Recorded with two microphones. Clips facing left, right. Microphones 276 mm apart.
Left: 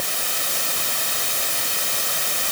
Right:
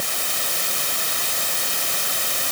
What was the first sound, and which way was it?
Only background noise.